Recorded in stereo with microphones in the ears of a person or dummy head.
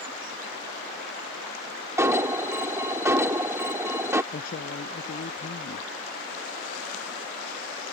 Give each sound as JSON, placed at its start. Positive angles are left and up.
{"t": 2.0, "sound": "an alarm", "side_deg": -20}
{"t": 4.3, "sound": "a man speaking", "side_deg": 65}